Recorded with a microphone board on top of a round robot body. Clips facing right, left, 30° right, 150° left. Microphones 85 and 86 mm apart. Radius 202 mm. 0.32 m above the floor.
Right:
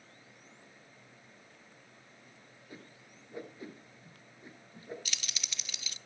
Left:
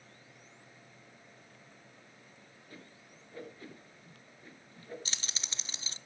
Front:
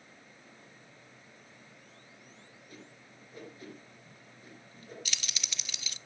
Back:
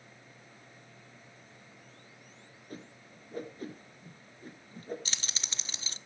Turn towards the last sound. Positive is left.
turn(degrees=120)